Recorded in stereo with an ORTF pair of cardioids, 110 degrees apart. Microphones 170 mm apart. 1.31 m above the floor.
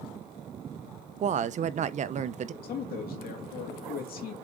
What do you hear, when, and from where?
1.2 s a woman speaking: 45° right, 0.7 m
2.6 s a man speaking: 65° left, 2.5 m